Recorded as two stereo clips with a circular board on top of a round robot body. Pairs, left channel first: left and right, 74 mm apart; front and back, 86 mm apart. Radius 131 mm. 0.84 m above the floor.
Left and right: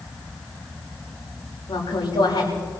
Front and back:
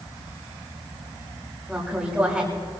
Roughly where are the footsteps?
I don't hear footsteps.